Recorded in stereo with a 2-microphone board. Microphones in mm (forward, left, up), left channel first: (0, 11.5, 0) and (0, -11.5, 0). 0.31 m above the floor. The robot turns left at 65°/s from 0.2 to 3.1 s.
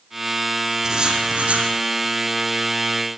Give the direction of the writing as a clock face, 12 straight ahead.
1 o'clock.